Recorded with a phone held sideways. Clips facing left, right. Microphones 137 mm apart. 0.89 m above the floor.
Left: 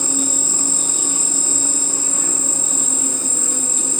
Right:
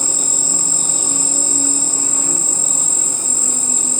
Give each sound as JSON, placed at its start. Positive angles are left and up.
{"t": 0.0, "sound": "an insect", "side_deg": -40, "distance_m": 4.5}